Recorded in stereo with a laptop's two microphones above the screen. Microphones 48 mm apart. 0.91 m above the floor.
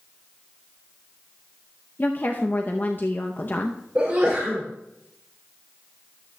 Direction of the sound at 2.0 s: 45° left (ahead or behind).